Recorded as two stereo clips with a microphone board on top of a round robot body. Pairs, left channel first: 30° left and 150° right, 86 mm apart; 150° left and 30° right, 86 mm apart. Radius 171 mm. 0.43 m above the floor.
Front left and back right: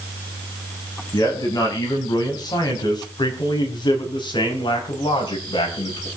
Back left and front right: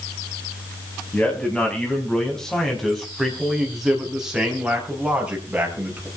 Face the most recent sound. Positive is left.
turn(degrees=40)